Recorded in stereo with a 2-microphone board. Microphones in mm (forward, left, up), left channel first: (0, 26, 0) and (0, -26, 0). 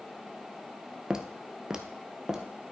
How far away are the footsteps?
About 1.0 m.